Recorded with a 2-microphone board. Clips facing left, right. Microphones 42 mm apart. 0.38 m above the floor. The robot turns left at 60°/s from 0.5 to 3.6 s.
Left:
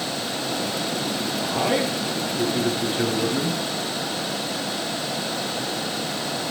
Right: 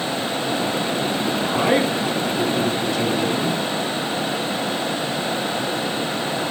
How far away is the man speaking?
About 5.5 m.